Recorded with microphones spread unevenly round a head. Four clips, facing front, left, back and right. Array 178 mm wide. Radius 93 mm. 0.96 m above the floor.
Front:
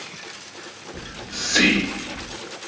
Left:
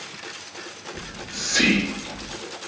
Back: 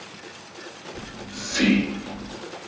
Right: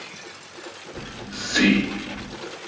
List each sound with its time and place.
0.9 s whispering: 20° right, 0.9 m